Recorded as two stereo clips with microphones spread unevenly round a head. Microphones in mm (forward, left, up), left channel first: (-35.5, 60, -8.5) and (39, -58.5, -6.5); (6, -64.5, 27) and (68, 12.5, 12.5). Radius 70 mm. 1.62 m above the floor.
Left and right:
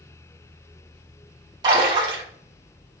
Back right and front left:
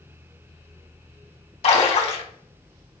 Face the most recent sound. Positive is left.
turn(degrees=-120)